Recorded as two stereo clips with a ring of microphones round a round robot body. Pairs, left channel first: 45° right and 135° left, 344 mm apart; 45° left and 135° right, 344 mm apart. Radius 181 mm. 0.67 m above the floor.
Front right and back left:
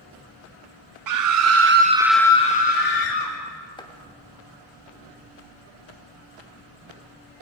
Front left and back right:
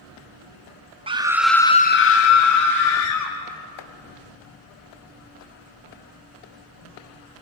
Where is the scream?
150° left, 1.4 m; by 3.3 s 5° left, 2.5 m.